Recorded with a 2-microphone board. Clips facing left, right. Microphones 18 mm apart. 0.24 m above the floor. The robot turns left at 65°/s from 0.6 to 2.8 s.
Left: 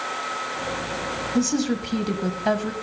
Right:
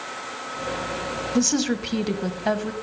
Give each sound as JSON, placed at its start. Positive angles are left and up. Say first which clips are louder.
{"t": 1.4, "sound": "a woman speaking", "louder": "right 1 dB", "azimuth_deg": -110, "distance_m": 1.1}